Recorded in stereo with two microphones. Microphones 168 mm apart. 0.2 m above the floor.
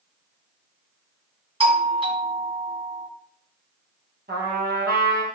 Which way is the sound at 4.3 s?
70° right (ahead or behind).